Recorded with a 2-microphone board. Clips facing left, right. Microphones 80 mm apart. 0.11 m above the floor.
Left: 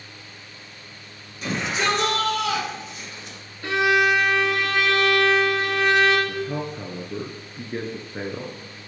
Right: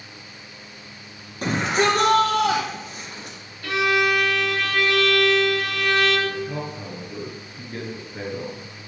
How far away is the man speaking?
About 1.2 m.